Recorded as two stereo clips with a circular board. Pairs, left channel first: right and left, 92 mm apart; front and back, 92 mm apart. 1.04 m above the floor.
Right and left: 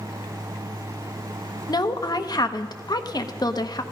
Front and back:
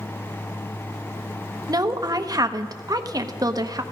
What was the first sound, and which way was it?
A woman speaking, 130° right.